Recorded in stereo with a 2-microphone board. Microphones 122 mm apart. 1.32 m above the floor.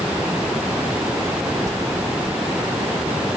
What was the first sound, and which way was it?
A bell, 25° right (ahead or behind).